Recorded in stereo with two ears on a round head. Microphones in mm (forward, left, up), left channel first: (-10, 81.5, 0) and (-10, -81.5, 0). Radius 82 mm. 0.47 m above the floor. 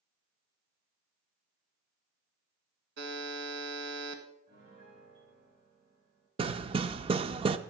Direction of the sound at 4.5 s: 75° right (ahead or behind).